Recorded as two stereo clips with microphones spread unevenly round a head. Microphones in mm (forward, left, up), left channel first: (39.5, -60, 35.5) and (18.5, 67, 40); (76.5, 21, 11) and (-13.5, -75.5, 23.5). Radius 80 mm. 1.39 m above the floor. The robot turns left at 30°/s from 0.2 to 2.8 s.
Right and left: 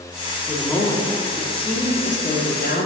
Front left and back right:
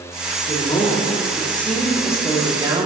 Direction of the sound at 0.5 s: Straight ahead.